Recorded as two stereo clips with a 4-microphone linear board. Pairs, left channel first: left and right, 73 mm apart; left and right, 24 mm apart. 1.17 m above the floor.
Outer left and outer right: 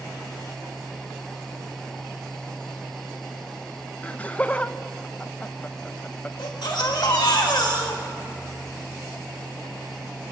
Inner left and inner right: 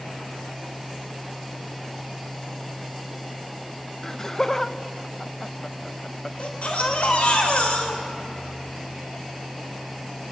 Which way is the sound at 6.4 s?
75° left (ahead or behind).